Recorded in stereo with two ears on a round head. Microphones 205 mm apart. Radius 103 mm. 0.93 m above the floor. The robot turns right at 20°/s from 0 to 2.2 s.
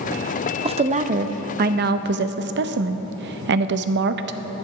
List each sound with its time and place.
0.7 s a woman speaking: 150° right, 0.6 m; by 4.4 s 120° right, 0.6 m